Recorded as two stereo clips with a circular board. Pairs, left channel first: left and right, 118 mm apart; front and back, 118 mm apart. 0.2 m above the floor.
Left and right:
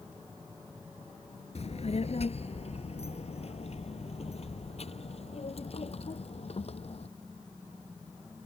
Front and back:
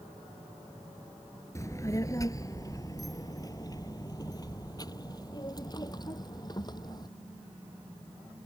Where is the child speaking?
65° left; by 7.1 s 55° left.